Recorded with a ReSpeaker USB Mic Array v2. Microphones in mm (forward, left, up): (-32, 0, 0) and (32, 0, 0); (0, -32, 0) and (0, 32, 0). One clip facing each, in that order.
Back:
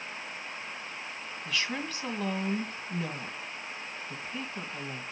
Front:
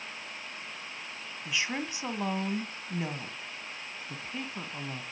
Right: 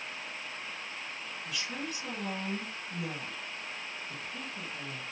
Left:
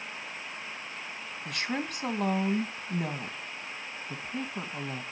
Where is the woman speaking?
70° left, 2 m.